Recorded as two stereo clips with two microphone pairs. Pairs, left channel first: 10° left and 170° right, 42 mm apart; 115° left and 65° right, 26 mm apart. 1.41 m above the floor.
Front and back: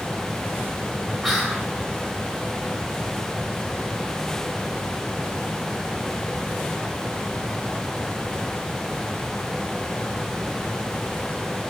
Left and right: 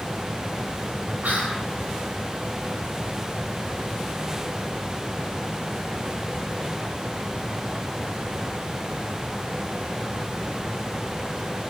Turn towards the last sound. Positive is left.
turn(degrees=-75)